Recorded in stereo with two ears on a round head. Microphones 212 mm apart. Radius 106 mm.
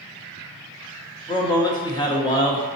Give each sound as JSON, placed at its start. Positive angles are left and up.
{"t": 1.3, "sound": "a man speaking", "side_deg": 20, "distance_m": 0.9}